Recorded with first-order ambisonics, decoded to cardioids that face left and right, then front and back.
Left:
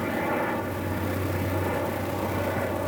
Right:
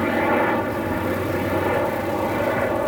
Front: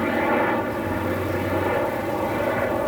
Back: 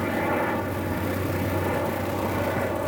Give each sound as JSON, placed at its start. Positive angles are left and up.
{"t": 0.0, "sound": "a helicopter", "azimuth_deg": -60}